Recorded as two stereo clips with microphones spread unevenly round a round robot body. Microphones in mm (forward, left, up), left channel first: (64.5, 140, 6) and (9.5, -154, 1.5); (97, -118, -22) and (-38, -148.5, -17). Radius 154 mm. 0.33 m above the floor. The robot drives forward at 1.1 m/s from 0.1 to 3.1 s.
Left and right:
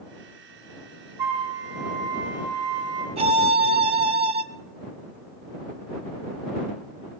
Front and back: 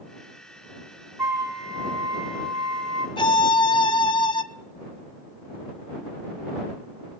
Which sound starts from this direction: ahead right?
A violin, at 3.2 s.